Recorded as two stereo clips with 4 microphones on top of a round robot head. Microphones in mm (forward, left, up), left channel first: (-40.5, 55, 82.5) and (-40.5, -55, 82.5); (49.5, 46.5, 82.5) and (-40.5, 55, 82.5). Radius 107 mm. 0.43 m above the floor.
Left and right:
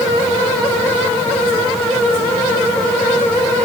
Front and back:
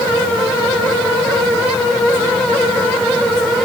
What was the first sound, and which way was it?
Only background noise.